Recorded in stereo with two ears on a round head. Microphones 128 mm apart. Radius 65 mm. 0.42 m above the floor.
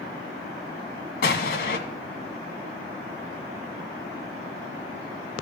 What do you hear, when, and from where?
1.2 s an explosion: 75° left (ahead or behind), 2 m